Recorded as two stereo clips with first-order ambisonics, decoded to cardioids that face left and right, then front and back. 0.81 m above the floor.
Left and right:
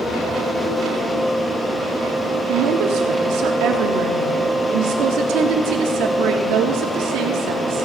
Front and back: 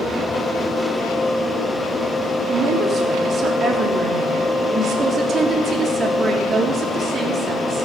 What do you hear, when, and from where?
2.5 s a woman speaking: 115° right, 1.6 m